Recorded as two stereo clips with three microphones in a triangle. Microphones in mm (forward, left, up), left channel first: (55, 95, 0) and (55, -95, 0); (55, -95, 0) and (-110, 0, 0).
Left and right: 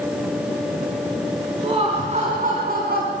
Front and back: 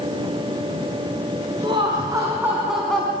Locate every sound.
1.6 s laughter: 150° right, 3.5 m; by 3.1 s 110° right, 3 m